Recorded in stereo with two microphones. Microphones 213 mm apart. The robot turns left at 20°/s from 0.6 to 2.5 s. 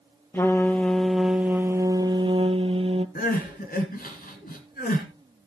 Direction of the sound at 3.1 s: 45° left (ahead or behind).